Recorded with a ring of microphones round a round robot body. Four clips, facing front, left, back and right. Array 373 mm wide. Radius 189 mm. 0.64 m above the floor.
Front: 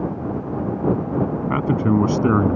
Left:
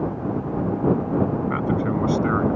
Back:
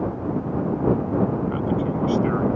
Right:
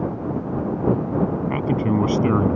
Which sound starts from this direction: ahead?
A man speaking, at 1.5 s.